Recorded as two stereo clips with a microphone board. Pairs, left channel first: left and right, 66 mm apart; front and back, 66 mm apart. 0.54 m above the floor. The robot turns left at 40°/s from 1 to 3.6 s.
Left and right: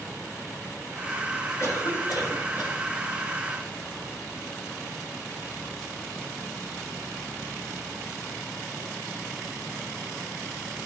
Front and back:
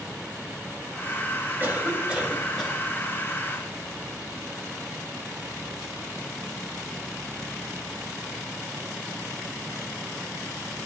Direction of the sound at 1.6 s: 125° left.